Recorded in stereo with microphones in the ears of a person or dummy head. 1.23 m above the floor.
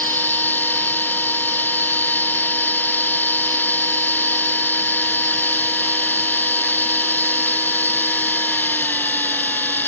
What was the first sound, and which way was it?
A machine running, 10° left (ahead or behind).